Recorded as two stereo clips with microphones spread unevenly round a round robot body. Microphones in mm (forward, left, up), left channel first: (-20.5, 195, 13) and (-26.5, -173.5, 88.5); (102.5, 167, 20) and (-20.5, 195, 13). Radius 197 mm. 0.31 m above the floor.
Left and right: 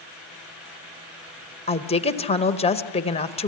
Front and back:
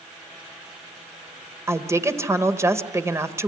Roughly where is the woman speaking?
Behind left.